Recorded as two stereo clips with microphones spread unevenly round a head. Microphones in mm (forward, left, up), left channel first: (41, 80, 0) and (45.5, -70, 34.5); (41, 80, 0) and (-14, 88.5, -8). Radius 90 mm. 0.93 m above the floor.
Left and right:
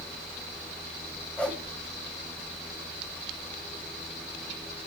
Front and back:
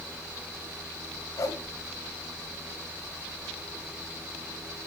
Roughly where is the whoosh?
Ahead.